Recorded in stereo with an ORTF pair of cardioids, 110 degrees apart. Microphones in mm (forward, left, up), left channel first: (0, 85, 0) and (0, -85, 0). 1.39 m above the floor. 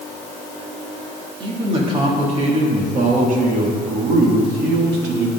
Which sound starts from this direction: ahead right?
A man speaking, at 1.4 s.